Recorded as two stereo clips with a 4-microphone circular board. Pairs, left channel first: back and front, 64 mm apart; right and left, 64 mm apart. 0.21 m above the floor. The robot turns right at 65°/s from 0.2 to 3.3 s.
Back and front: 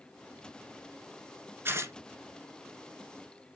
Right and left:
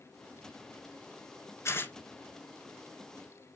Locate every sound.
1.6 s tearing paper: 50° right, 1.1 m; by 1.9 s 30° right, 1.1 m